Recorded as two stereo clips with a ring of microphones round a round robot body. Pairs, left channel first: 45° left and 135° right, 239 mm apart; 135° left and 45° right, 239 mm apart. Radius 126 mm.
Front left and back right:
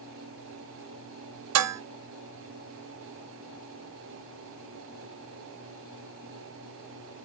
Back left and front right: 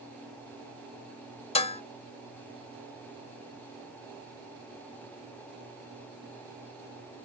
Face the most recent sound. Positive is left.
turn(degrees=-160)